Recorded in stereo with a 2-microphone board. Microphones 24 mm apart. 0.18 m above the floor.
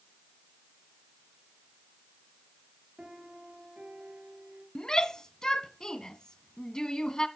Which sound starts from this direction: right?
A piano, at 3.0 s.